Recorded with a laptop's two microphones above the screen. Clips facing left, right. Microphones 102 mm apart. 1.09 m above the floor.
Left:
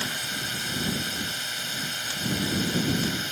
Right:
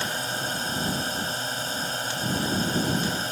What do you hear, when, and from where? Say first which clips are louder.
0.0 s a drone: right 4 dB; 35° right (ahead or behind)